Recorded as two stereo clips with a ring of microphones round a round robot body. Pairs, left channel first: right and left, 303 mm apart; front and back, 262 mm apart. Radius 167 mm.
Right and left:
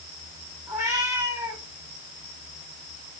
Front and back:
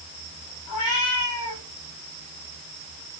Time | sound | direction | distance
0.7 | a cat meowing | 10° left | 8.5 m